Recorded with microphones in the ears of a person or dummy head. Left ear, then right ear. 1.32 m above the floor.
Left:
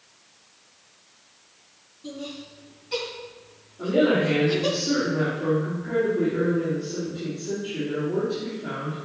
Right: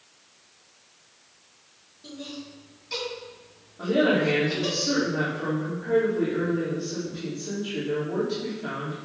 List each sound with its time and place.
2.0 s laughter: 40° right (ahead or behind), 4 m; by 4.8 s 25° right (ahead or behind), 3 m
3.8 s a woman speaking: 50° right (ahead or behind), 3 m